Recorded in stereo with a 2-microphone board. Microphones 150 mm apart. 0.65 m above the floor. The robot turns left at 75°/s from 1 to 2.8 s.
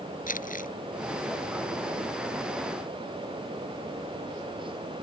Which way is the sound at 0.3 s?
65° left (ahead or behind).